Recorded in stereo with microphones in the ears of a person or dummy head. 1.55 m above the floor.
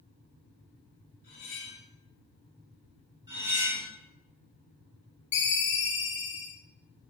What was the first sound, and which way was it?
Cutlery clinking, 35° left (ahead or behind).